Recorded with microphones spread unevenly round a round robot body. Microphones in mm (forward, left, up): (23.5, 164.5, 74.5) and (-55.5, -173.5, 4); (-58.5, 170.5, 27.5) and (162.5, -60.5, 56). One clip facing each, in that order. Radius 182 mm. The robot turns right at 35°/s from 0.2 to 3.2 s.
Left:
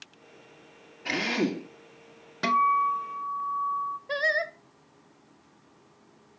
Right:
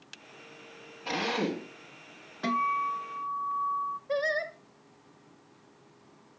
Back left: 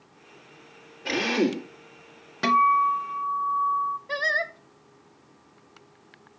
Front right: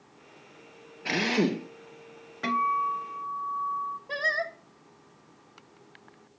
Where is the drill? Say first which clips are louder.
Left 3 dB, back left 2 dB; 25° left, 5.5 m; by 1.7 s 45° left, 5.5 m.